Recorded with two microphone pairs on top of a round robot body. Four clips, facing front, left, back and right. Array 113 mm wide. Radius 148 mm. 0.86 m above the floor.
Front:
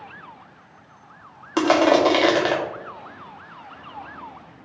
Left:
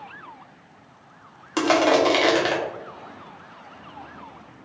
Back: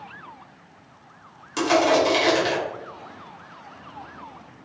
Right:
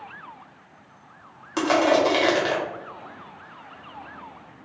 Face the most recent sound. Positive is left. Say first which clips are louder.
# left 1 dB, front 3 dB
turn(degrees=30)